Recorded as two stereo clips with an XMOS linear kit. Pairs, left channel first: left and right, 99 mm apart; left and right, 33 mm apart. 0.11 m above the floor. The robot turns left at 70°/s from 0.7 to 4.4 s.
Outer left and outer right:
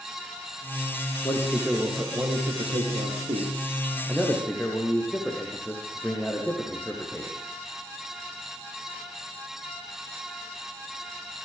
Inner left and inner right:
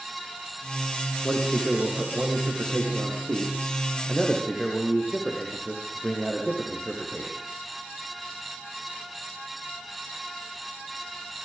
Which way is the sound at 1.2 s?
35° left.